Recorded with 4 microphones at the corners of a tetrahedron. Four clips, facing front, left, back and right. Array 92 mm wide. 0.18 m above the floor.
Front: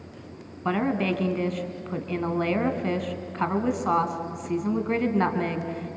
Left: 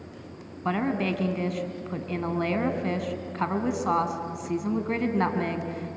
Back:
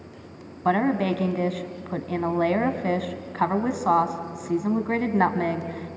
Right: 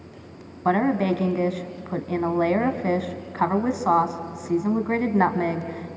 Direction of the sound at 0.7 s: 125° right.